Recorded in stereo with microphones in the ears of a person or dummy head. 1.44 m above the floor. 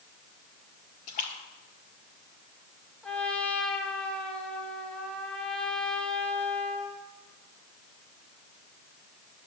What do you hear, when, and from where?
1.1 s a splash: 45° left (ahead or behind), 1.7 m
3.0 s a trumpet: centre (ahead or behind), 1.7 m